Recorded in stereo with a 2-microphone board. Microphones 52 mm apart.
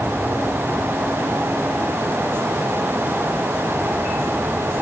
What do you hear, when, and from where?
Only background noise.